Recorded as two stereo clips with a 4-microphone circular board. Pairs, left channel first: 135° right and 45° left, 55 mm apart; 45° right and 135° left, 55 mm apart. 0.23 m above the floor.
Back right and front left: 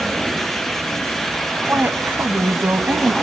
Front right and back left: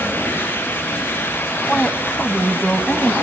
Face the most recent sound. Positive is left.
turn(degrees=15)